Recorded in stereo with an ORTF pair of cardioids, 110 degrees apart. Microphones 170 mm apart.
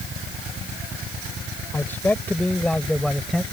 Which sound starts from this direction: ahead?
A man speaking, at 1.7 s.